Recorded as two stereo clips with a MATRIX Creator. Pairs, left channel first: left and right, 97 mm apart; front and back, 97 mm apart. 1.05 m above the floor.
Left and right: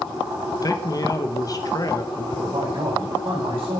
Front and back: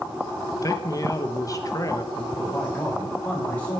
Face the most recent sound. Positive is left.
turn(degrees=-70)